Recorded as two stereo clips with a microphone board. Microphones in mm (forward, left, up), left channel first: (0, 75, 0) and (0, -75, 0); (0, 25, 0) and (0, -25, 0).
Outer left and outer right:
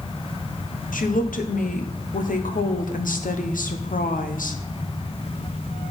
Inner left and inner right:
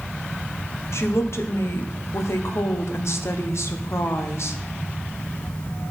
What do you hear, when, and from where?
0.9 s a woman speaking: 65° left (ahead or behind), 0.8 m